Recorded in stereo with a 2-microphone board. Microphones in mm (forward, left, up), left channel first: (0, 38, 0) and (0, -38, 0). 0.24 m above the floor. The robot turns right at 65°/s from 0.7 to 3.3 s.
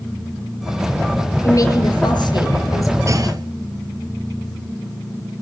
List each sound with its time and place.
1.4 s a woman speaking: 40° left, 4.5 m; by 3.0 s 140° left, 4.5 m
3.1 s a clunk: 40° right (ahead or behind), 0.9 m; by 3.5 s 55° right (ahead or behind), 0.9 m